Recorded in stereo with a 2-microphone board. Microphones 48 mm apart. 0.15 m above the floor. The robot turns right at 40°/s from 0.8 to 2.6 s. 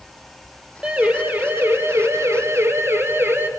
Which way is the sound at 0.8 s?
25° right (ahead or behind).